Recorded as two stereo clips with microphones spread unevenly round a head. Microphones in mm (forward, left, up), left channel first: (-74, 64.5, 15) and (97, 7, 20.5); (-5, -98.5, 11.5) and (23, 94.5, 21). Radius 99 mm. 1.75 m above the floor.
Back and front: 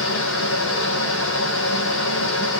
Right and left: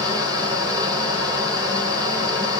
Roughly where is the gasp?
No gasp in this recording.